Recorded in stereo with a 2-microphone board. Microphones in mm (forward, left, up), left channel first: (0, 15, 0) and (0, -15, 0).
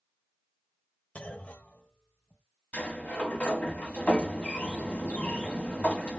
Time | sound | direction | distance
1.1 | a clunk | 55° left (ahead or behind) | 0.6 m
2.7 | a sliding door | 50° left (ahead or behind) | 1.0 m